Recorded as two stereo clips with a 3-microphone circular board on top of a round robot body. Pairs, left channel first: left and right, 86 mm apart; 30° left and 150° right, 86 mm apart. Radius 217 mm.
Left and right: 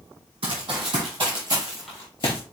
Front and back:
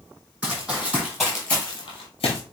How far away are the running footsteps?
About 1.8 m.